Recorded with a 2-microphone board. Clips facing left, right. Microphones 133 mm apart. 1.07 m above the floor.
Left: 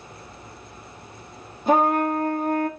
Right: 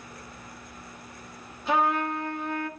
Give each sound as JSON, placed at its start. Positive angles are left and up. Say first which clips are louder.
{"t": 1.7, "sound": "a trumpet", "louder": "left 6 dB", "side_deg": 45, "distance_m": 1.4}